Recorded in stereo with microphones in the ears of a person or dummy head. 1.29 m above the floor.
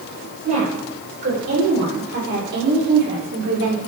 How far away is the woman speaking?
About 5 m.